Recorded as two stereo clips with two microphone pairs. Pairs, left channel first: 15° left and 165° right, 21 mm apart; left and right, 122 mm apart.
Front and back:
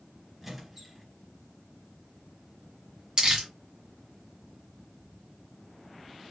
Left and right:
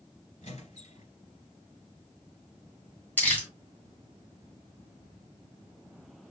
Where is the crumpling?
165° left, 2.5 m.